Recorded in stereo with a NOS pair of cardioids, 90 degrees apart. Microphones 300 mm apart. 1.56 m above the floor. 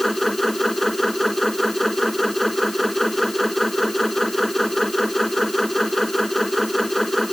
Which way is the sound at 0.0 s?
Straight ahead.